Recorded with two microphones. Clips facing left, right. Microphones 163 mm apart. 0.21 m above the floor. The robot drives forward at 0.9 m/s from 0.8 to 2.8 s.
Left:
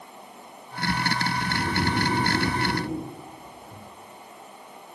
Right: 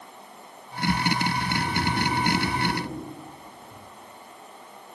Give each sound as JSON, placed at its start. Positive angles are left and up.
{"t": 1.4, "sound": "snoring", "side_deg": 15, "distance_m": 4.0}